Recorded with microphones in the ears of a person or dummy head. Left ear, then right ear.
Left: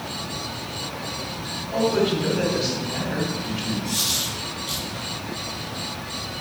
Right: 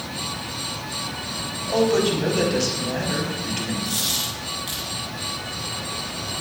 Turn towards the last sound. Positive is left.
turn(degrees=-20)  # may be behind; listen again after turning